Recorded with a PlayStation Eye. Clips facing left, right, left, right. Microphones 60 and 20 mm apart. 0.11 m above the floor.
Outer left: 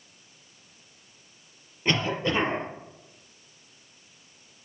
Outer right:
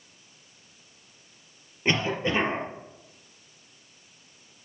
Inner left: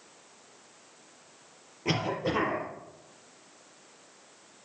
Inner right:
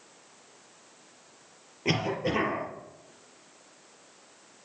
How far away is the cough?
About 3 m.